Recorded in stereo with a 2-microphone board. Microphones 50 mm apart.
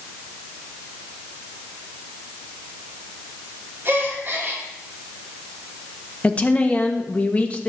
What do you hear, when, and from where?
3.9 s a gasp: 45° right (ahead or behind), 3 m
6.2 s a woman speaking: 25° left (ahead or behind), 1.5 m